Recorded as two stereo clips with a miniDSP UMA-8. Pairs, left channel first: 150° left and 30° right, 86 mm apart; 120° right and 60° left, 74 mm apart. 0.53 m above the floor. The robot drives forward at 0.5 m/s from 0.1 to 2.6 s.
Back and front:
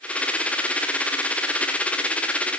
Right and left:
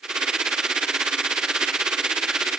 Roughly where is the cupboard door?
I don't hear a cupboard door.